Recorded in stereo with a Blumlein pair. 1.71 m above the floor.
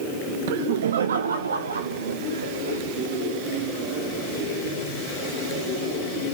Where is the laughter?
50° right, 0.6 m; by 2.8 s 75° right, 2 m.